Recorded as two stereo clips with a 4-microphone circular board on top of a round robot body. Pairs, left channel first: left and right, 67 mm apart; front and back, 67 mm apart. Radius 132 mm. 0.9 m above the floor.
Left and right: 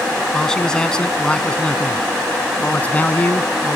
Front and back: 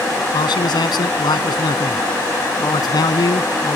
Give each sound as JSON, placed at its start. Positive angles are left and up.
{"t": 0.3, "sound": "a man speaking", "azimuth_deg": 10}